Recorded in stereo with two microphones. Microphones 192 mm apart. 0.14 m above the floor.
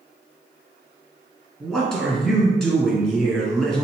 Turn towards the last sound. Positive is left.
turn(degrees=5)  # may be behind; listen again after turning